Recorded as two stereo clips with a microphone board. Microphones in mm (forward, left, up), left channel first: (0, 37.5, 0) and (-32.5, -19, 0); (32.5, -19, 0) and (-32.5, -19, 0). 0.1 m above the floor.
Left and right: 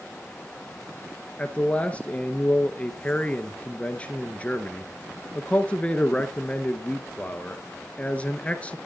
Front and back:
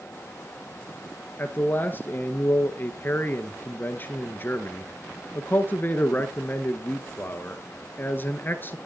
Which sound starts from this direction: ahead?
A man speaking, at 1.4 s.